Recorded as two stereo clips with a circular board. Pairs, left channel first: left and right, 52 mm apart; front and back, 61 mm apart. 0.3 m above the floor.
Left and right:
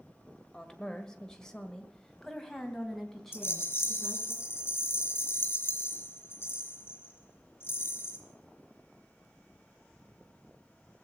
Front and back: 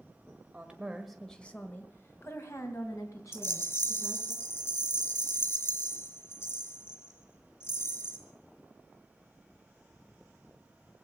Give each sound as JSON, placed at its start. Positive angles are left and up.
{"t": 0.5, "sound": "a woman speaking", "azimuth_deg": 150, "distance_m": 1.5}
{"t": 3.3, "sound": "a rattle", "azimuth_deg": 40, "distance_m": 4.5}